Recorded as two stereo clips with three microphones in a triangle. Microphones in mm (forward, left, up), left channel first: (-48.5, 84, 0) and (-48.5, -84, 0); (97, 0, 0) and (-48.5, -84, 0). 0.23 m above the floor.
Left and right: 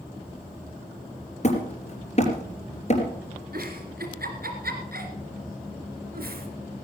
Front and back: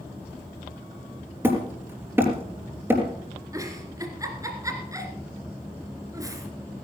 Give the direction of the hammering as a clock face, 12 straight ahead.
8 o'clock.